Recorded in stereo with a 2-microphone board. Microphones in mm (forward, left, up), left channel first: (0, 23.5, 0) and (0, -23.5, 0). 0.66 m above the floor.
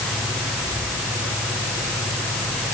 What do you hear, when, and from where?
Only background noise.